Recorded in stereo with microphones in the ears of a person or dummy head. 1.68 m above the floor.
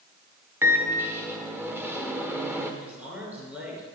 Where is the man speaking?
5° right (ahead or behind), 6 m.